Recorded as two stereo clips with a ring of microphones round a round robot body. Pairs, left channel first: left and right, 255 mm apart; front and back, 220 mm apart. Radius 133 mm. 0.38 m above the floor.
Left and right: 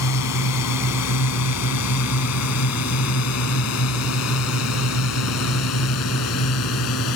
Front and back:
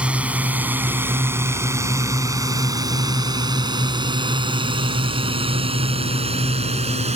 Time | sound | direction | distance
0.0 | a drone | 95° left | ?